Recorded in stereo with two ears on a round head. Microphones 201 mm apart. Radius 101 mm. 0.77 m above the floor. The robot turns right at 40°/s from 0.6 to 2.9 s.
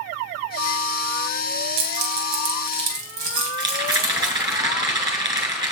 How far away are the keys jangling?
About 3.5 m.